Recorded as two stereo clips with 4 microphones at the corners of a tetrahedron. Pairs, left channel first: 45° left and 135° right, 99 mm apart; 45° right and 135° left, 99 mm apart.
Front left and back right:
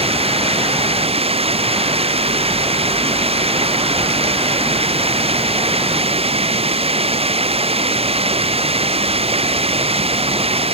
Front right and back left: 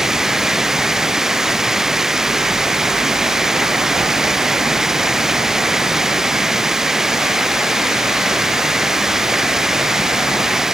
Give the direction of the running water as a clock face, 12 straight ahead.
5 o'clock.